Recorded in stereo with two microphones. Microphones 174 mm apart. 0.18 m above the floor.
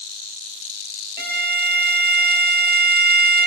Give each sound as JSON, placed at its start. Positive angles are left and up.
{"t": 1.2, "sound": "a violin", "side_deg": -75}